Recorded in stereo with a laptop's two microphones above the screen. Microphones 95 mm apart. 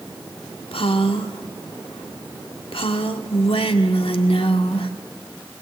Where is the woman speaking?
80° left, 1.7 m.